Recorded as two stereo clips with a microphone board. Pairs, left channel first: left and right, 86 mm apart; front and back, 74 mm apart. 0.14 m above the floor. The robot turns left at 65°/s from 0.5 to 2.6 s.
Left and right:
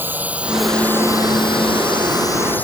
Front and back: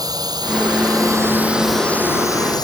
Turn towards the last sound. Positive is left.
turn(degrees=20)